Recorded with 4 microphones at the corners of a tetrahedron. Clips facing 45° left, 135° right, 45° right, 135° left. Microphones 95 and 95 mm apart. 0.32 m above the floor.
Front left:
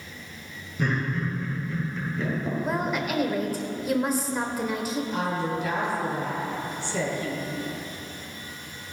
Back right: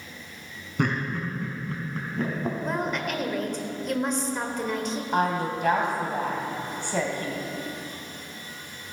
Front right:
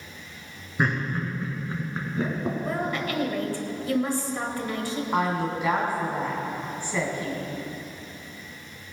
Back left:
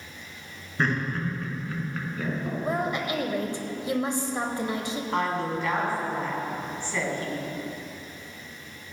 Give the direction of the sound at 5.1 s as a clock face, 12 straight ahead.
4 o'clock.